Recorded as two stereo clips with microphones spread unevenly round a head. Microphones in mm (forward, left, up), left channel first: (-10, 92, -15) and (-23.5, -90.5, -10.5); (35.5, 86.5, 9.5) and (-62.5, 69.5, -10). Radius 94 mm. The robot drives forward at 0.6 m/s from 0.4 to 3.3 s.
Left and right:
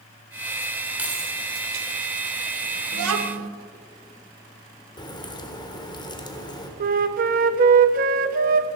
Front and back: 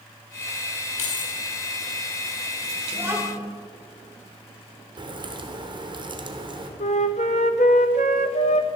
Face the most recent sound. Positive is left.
turn(degrees=-45)